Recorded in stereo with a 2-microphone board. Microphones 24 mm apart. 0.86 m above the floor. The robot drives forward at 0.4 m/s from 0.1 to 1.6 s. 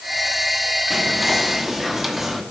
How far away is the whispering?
About 1.5 m.